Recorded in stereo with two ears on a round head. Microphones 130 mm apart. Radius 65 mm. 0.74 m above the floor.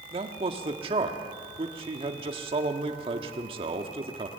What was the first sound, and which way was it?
A man speaking, 35° right (ahead or behind).